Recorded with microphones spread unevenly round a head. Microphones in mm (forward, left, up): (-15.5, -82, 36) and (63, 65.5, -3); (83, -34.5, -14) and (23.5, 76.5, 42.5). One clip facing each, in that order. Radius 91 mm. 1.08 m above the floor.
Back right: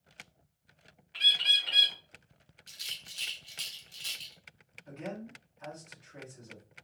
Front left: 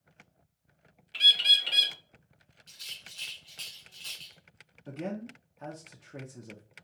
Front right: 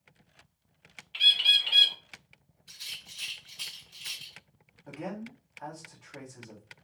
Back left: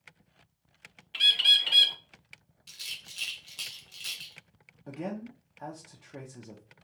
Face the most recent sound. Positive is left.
turn(degrees=50)